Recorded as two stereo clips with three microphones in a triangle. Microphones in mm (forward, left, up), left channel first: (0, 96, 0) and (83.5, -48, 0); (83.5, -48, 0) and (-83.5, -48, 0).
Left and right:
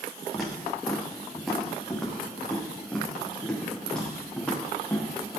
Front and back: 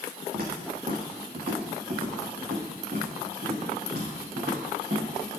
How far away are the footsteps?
About 5.5 m.